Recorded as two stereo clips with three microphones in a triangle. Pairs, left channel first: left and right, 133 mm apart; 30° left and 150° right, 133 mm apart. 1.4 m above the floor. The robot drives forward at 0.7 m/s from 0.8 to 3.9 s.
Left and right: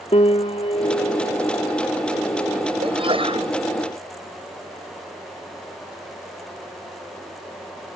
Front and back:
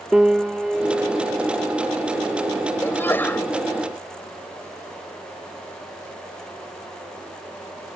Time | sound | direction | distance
0.1 | a piano | 125° left | ?
2.8 | a sneeze | 45° right | ?